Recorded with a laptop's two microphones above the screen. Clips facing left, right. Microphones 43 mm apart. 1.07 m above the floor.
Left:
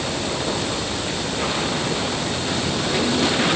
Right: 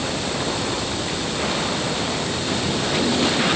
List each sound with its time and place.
Only background noise.